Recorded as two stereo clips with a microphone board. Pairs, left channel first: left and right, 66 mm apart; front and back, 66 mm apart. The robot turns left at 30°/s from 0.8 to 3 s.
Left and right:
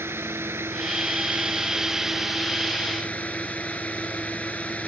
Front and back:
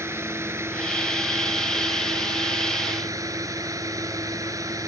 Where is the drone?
135° right; by 4.9 s 155° left.